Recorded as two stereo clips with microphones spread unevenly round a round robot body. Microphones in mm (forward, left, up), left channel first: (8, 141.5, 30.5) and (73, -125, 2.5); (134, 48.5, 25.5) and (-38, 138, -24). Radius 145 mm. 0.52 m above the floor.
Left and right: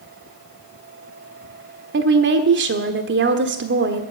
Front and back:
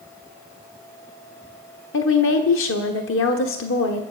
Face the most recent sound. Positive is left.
turn(degrees=-45)